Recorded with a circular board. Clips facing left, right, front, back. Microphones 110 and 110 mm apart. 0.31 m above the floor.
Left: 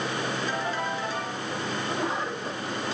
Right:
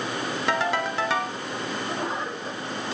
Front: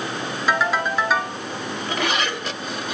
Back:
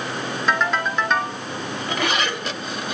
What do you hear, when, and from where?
0.5 s a ringtone: 85° right, 1.8 m